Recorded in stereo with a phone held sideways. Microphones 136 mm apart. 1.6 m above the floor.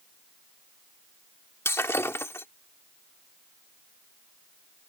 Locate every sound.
1.6 s breaking glass: 20° left (ahead or behind)